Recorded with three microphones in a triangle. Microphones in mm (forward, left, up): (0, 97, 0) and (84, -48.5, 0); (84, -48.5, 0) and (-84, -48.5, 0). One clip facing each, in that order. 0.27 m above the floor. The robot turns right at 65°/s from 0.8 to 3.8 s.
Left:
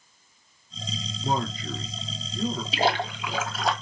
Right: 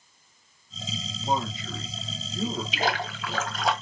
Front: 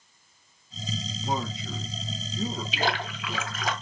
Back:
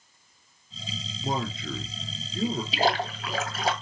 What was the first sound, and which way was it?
A man speaking, 135° left.